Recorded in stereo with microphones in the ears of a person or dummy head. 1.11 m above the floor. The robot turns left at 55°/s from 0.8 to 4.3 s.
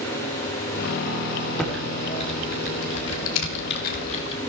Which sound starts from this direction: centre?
Typing on a keyboard, at 1.6 s.